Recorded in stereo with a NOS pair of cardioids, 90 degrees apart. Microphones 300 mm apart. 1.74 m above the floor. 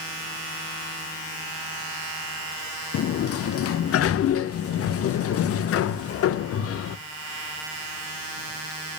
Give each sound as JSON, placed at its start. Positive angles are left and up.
{"t": 2.9, "sound": "a sliding door", "azimuth_deg": 55, "distance_m": 0.6}